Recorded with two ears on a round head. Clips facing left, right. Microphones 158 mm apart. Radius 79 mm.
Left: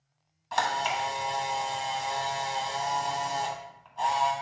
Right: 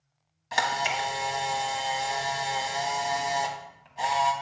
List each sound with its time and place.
0.5 s a camera shutter: 20° right (ahead or behind), 1.1 m